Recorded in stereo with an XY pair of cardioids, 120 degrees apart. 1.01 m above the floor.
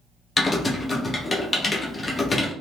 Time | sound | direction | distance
0.4 | typing on a keyboard | 25° left | 0.7 m